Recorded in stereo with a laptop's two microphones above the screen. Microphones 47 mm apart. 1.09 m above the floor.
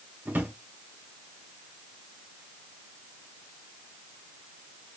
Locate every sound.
0.2 s a drawer: 40° right (ahead or behind), 1.0 m